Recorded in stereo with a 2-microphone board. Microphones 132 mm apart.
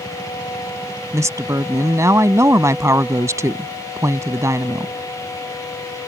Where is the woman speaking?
25° right (ahead or behind).